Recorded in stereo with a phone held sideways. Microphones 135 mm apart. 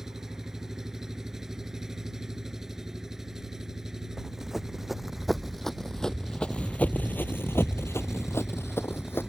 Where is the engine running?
5° right (ahead or behind).